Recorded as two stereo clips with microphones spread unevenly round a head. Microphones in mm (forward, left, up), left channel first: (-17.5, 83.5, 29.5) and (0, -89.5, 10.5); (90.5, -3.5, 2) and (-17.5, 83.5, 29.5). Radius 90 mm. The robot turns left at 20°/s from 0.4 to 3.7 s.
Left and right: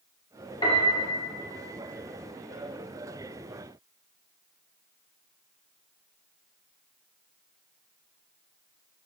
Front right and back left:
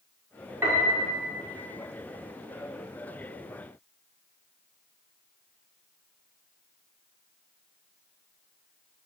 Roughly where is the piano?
Behind left.